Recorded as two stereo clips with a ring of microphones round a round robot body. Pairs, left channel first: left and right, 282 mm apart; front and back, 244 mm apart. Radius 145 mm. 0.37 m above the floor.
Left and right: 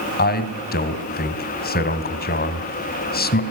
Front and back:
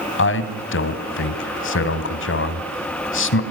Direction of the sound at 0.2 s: 35° left.